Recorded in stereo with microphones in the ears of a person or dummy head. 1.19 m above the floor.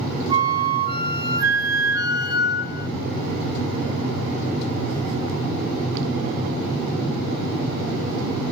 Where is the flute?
15° right (ahead or behind), 3 m.